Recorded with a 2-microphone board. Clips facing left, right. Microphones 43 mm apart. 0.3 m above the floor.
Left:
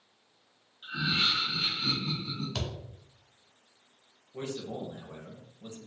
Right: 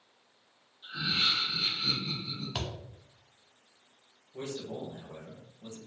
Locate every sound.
0.8 s laughter: 60° left (ahead or behind), 2 m
2.5 s a thud: 20° right (ahead or behind), 1.0 m
4.3 s a man speaking: 35° left (ahead or behind), 1.3 m